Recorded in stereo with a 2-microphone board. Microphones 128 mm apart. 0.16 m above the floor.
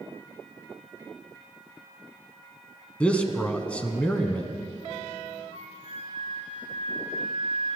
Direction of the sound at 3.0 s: 10° left (ahead or behind).